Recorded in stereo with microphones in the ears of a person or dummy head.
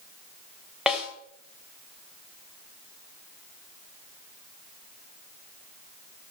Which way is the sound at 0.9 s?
Centre (ahead or behind).